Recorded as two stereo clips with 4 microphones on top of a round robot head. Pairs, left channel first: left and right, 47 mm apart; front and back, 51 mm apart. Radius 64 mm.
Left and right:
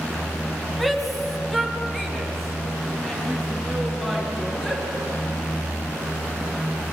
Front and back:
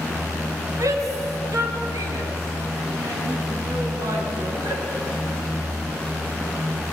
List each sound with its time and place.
0.8 s a shout: straight behind, 4 m; by 4.8 s 175° left, 8 m